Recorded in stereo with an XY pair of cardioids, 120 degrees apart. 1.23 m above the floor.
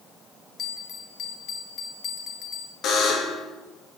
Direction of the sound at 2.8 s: 60° left.